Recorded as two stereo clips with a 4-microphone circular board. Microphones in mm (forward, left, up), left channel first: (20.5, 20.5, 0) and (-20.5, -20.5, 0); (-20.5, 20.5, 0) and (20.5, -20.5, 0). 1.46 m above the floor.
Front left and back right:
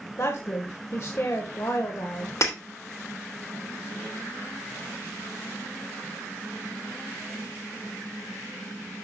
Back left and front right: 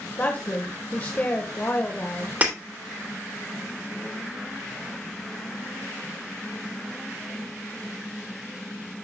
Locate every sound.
0.2 s a woman speaking: 80° left, 1.4 m
2.4 s breaking glass: 20° left, 2.5 m